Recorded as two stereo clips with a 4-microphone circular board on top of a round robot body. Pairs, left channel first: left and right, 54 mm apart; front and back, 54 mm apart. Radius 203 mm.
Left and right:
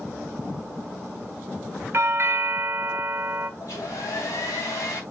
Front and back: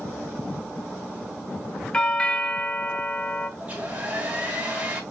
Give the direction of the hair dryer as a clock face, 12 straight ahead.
8 o'clock.